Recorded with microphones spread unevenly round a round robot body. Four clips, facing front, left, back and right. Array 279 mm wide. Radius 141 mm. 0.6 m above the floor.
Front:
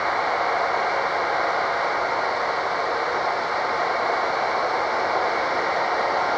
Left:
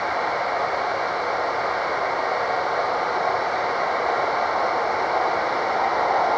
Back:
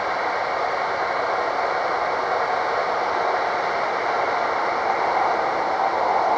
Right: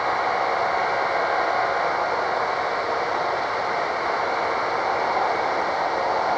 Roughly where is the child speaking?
No child speaking in this recording.